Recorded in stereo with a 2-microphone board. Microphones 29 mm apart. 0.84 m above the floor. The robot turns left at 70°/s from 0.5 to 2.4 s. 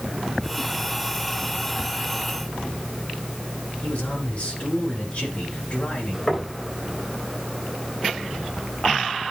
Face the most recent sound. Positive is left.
turn(degrees=25)  # may be behind; listen again after turning